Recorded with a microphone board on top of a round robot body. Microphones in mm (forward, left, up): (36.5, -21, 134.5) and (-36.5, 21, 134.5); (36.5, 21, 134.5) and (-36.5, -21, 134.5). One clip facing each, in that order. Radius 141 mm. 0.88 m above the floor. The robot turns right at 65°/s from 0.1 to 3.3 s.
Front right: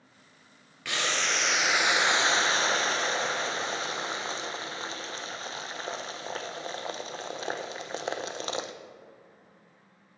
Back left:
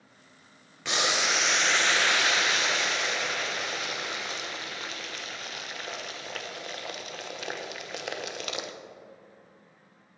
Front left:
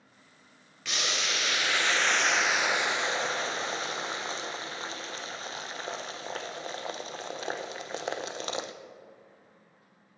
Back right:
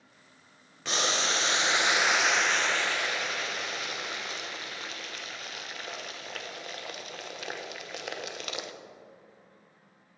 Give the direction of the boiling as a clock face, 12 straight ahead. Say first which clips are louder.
Back left 2 dB, back right 4 dB; 5 o'clock.